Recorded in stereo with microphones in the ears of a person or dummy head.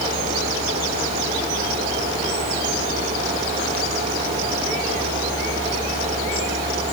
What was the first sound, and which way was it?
Only background noise.